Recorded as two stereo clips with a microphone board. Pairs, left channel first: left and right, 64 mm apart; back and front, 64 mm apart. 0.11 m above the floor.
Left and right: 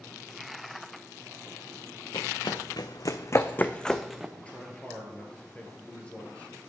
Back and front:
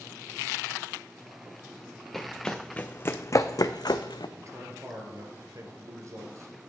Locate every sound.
2.1 s running footsteps: 95° left, 0.9 m; by 4.3 s 175° right, 0.7 m
4.4 s a man speaking: 20° left, 1.7 m